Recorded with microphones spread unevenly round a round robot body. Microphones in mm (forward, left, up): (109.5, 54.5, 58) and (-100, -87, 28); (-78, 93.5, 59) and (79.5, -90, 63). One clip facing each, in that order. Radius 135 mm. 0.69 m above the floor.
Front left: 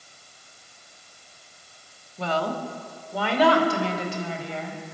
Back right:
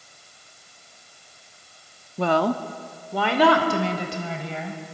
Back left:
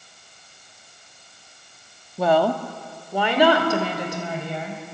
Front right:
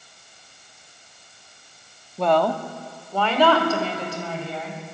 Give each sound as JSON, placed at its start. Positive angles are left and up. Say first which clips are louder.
{"t": 2.2, "sound": "a woman speaking", "louder": "back right 6 dB, back left 1 dB", "azimuth_deg": -145, "distance_m": 1.5}